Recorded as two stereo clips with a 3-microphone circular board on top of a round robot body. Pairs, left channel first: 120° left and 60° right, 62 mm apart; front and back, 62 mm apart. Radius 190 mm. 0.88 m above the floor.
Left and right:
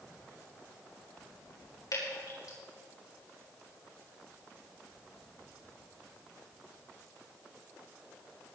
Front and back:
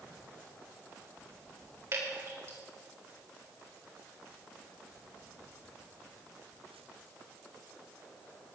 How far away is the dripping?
About 6.5 m.